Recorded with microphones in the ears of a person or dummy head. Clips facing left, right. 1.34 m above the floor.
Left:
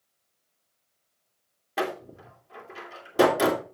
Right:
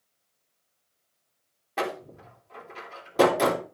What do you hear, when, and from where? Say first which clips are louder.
1.8 s a door slam: left 1 dB; 10° left (ahead or behind), 3 m